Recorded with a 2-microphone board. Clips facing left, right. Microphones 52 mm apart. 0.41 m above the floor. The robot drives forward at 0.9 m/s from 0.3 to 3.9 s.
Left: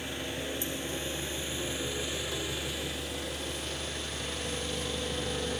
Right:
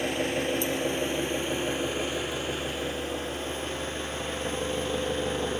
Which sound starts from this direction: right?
An engine running, at 0.0 s.